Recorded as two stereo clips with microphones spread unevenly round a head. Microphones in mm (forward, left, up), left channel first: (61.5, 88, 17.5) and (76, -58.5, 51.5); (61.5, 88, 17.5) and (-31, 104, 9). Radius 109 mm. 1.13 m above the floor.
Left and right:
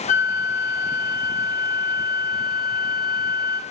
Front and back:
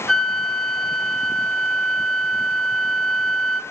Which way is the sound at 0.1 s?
80° left.